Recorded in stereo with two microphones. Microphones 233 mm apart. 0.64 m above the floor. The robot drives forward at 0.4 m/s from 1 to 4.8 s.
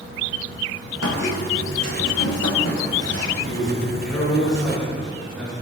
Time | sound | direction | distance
1.0 | a squeak | 80° left | 2 m
3.4 | a man speaking | centre (ahead or behind) | 6 m